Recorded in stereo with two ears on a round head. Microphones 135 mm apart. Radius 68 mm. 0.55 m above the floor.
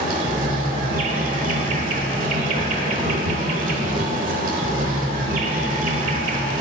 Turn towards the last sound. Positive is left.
turn(degrees=-60)  # may be behind; listen again after turning